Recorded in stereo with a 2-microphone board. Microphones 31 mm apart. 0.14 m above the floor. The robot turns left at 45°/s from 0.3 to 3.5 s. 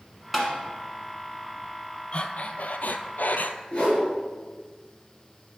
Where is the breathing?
135° left, 0.5 m; by 3.6 s 70° left, 0.5 m.